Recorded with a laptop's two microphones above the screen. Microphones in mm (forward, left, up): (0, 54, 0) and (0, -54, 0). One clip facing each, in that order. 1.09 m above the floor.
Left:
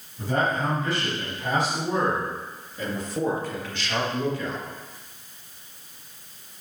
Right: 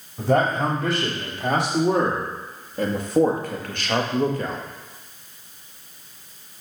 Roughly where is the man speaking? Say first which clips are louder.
Right 5 dB; right.